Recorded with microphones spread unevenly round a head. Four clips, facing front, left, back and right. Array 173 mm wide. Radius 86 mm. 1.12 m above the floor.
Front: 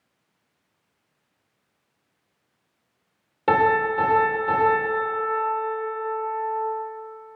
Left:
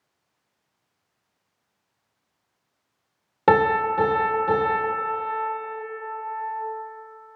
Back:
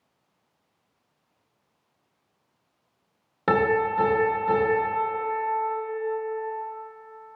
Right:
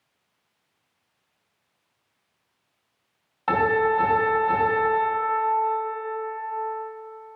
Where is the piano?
110° left, 1.3 m.